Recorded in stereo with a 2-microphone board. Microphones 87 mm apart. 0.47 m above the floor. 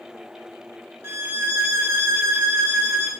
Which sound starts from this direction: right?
A violin, at 1.0 s.